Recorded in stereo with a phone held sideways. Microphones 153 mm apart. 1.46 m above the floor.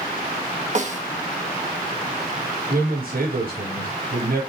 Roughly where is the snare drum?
Right.